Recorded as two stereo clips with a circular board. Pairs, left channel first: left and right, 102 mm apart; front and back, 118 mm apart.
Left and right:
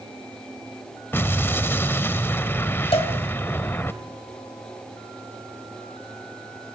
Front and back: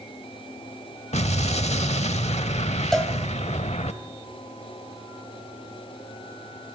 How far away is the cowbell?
About 2.5 m.